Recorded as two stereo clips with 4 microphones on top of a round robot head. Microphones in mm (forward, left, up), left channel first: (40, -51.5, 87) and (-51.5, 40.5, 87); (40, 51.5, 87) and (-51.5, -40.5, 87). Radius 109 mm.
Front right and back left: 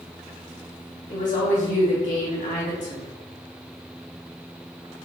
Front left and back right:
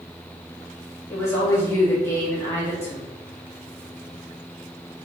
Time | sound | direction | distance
1.1 | a woman speaking | 25° right | 1.8 m